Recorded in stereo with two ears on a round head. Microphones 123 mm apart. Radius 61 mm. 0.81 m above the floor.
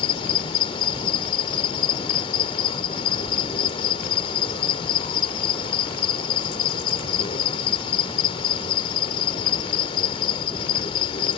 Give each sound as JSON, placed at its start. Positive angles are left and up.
{"t": 0.0, "sound": "an insect", "side_deg": 40}